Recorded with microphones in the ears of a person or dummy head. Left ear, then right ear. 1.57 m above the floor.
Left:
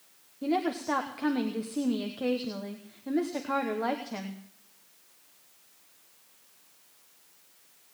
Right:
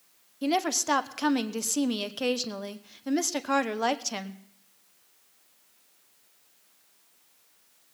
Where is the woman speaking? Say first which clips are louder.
Right 3 dB; 75° right (ahead or behind), 1.0 m.